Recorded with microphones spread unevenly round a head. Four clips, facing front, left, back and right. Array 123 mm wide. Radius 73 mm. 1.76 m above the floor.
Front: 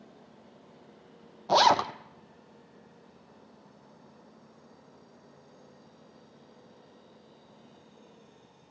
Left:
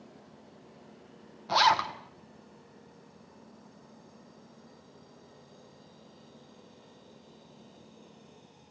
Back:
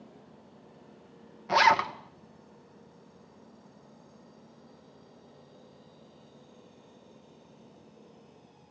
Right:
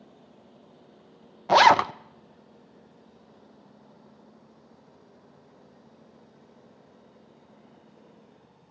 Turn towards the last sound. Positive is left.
turn(degrees=-70)